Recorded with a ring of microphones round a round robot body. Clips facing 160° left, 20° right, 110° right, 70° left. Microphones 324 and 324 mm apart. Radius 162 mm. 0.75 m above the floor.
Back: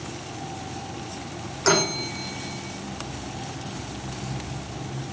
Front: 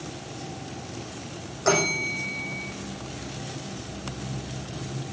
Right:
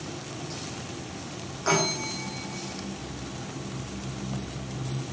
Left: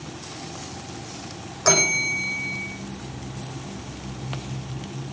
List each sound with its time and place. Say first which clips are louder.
1.6 s a bell: back 1 dB, left 2 dB; 95° left, 6 m